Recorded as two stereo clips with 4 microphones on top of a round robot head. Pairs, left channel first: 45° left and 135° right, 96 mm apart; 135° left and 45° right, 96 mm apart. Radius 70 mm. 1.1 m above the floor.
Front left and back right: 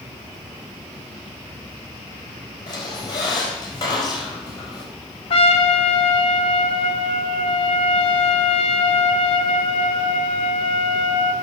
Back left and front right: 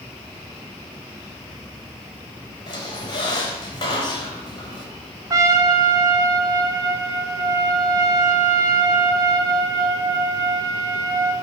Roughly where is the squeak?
Left.